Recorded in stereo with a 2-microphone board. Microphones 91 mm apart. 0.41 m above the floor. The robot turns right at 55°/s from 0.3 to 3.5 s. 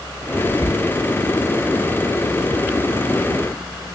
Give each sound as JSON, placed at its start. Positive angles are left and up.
{"t": 0.4, "sound": "whispering", "side_deg": 45, "distance_m": 1.7}